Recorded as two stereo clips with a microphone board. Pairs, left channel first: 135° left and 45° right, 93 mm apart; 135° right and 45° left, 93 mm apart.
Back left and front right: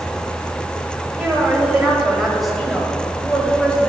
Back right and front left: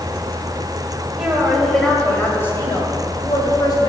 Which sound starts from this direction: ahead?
A woman speaking, at 1.2 s.